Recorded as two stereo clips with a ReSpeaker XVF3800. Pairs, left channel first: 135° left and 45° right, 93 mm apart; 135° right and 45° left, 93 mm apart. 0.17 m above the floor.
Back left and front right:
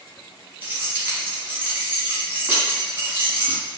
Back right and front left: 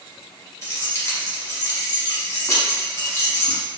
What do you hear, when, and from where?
0.6 s keys jangling: 100° right, 0.8 m